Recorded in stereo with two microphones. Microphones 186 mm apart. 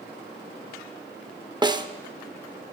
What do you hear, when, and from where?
1.6 s a snare drum: 25° right (ahead or behind), 0.5 m